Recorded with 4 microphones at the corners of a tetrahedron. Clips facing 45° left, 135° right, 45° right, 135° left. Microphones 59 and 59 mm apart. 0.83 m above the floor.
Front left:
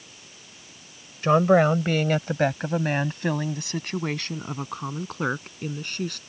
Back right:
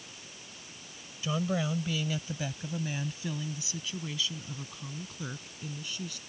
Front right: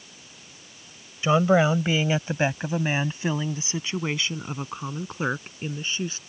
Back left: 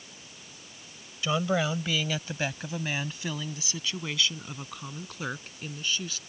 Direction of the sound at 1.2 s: 15° left.